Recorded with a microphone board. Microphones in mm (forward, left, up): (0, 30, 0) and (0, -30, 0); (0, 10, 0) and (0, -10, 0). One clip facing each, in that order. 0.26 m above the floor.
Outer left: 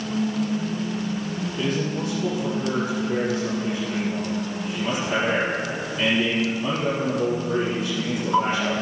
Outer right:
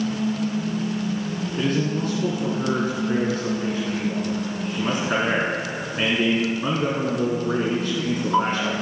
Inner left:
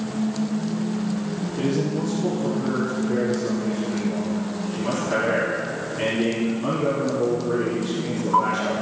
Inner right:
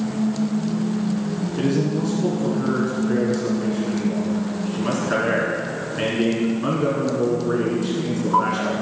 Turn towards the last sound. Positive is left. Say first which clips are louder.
# outer right 3 dB, inner right 2 dB
turn(degrees=-50)  # may be behind; listen again after turning